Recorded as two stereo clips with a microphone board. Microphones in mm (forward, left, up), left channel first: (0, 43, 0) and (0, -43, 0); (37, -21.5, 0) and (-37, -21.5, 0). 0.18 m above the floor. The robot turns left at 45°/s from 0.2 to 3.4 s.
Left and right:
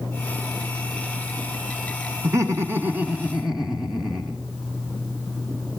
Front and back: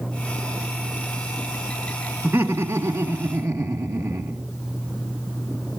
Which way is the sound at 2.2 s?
120° right.